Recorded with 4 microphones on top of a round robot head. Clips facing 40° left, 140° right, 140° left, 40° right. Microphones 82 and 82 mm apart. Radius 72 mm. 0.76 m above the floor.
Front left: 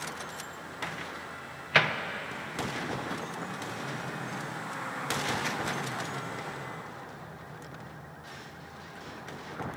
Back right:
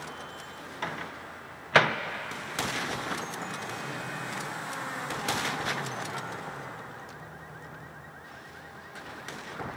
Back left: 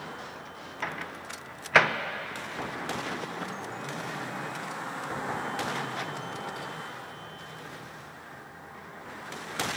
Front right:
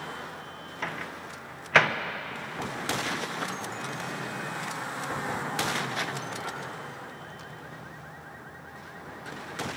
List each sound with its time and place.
0.8 s a microwave: 140° right, 0.7 m